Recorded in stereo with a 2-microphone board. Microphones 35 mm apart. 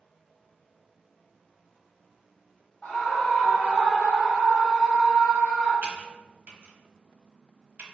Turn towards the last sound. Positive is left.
turn(degrees=-45)  # may be behind; listen again after turning